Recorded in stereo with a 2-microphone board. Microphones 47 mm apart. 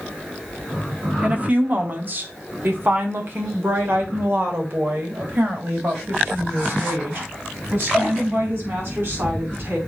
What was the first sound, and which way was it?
A woman speaking, 30° right (ahead or behind).